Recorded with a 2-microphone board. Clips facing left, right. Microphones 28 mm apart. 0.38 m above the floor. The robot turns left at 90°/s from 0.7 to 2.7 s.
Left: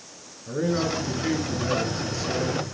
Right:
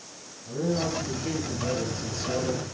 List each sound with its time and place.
0.5 s a man speaking: 135° left, 6 m; by 2.6 s 40° right, 6 m